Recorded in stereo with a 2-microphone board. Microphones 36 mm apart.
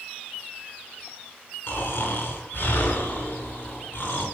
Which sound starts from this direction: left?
Snoring, at 1.7 s.